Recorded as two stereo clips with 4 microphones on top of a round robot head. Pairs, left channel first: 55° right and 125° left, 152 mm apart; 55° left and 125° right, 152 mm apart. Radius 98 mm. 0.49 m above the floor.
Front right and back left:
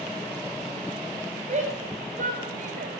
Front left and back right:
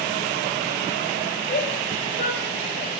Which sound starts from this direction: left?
A shout, at 1.5 s.